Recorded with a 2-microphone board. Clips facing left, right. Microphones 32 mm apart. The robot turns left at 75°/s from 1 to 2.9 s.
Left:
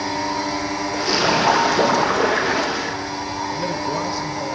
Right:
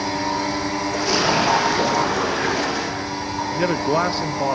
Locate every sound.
0.9 s a splash: 160° left, 8 m; by 3.0 s 20° left, 8 m
3.5 s a man speaking: 50° right (ahead or behind), 1.0 m